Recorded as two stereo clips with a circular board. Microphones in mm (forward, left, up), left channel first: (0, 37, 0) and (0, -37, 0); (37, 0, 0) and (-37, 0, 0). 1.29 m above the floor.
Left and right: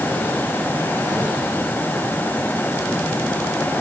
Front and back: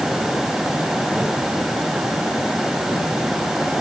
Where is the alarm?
I don't hear an alarm.